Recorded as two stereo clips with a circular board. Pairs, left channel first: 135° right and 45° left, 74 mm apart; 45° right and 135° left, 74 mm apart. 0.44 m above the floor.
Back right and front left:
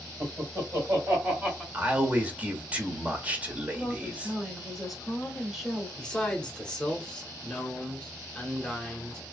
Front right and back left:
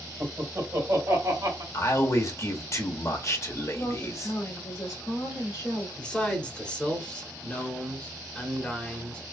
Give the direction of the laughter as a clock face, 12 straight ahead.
9 o'clock.